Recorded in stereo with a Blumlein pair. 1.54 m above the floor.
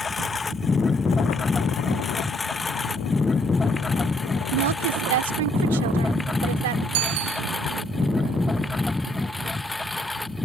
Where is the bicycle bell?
50° right.